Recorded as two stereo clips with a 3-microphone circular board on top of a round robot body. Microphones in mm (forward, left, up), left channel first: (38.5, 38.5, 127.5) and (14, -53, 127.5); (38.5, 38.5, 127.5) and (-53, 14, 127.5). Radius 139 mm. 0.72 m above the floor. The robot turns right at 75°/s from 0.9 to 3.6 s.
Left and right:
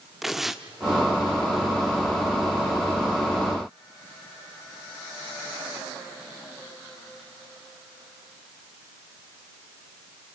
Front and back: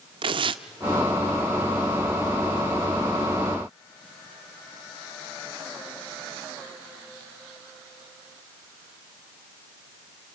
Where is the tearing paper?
170° left, 0.6 m.